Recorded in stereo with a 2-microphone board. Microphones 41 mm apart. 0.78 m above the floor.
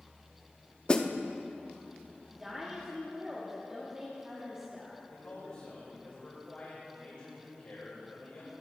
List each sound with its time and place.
0.9 s a snare drum: 25° left (ahead or behind), 0.5 m
2.3 s a woman speaking: 20° right (ahead or behind), 1.3 m
5.1 s a man speaking: 45° left (ahead or behind), 3.5 m